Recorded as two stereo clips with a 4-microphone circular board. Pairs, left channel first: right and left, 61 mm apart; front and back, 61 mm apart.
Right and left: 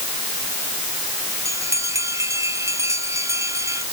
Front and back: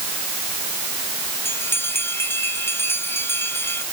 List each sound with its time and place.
1.4 s a bell: 50° left